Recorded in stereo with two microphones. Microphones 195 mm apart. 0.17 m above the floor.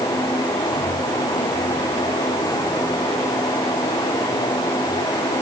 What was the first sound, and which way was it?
Only background noise.